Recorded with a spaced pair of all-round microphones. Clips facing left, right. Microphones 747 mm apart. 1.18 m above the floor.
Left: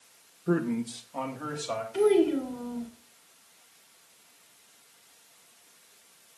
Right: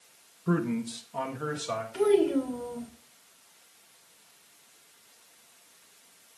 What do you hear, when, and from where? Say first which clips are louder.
0.5 s a man speaking: left 1 dB; 35° right (ahead or behind), 1.5 m; by 1.8 s 50° right (ahead or behind), 3.5 m
1.9 s a child speaking: left 1 dB; 10° right (ahead or behind), 3 m